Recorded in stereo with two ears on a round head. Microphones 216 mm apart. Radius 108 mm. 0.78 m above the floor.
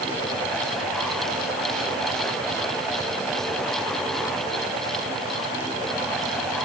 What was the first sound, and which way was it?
Only background noise.